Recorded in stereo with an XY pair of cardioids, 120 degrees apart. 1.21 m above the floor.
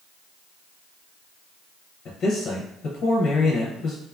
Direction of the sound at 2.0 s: 55° left.